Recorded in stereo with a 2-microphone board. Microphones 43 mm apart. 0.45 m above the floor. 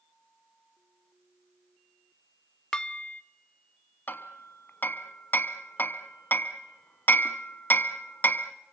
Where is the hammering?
45° left (ahead or behind), 1.1 m.